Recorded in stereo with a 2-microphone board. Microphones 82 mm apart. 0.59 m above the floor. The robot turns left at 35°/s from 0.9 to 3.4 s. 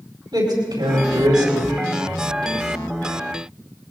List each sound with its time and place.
0.3 s a man speaking: 75° right (ahead or behind), 4 m; by 1.7 s 55° right (ahead or behind), 4 m